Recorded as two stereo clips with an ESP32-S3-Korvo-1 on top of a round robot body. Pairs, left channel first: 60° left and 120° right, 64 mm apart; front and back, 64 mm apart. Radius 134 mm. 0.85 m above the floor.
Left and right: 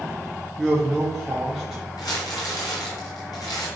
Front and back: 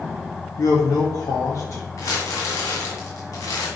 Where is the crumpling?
40° left, 1.8 m.